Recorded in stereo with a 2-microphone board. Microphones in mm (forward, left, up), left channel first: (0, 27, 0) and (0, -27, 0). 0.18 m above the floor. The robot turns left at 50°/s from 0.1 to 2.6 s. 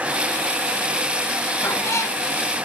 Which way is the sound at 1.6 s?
55° left (ahead or behind).